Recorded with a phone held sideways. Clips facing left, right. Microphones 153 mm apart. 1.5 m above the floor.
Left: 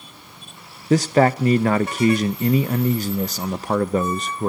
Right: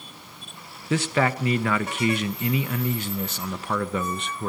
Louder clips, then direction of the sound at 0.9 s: Left 7 dB; 35° left (ahead or behind).